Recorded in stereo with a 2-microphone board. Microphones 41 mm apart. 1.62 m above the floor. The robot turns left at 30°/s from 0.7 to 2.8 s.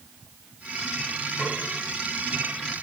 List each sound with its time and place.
1.4 s a snare drum: 50° right (ahead or behind), 8 m; by 1.6 s 45° right (ahead or behind), 8 m